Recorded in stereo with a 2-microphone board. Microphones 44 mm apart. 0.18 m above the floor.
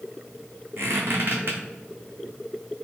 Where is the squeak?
60° right (ahead or behind), 1.1 m.